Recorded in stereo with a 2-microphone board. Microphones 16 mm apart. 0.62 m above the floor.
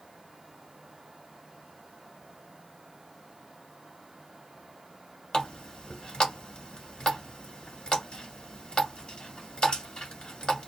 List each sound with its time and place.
5.3 s a running tap: 75° left (ahead or behind), 1.8 m